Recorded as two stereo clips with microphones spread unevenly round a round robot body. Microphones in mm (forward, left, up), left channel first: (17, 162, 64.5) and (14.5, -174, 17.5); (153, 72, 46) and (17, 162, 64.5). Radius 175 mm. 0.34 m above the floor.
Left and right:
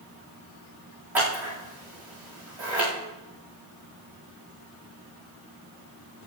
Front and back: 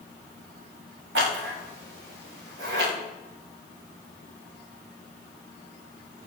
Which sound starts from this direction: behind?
Scissors, at 1.1 s.